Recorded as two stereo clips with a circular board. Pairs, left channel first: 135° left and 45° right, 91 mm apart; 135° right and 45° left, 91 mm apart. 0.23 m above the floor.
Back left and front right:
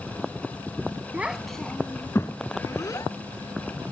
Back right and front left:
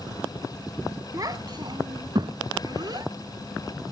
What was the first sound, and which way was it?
A child speaking, 20° left.